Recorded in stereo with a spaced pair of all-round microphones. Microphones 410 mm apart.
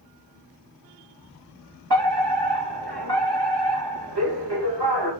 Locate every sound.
1.9 s a fire alarm: 70° right (ahead or behind), 3.5 m